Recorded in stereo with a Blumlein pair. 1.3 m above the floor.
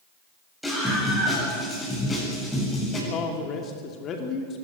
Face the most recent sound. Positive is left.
turn(degrees=30)